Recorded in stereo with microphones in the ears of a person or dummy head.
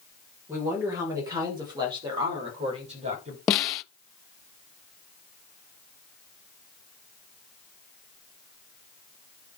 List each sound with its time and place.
0.5 s a woman speaking: 20° right (ahead or behind), 5 m; by 3.4 s 45° right (ahead or behind), 5.5 m
3.5 s a snare drum: 25° left (ahead or behind), 0.7 m